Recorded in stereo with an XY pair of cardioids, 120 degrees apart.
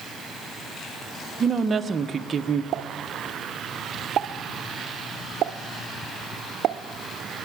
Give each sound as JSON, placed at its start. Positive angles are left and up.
{"t": 1.4, "sound": "a woman speaking", "azimuth_deg": -30, "distance_m": 0.7}
{"t": 2.7, "sound": "a pop", "azimuth_deg": -60, "distance_m": 0.5}